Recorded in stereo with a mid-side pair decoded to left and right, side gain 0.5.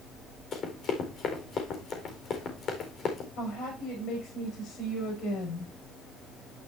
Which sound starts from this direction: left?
A woman speaking, at 3.4 s.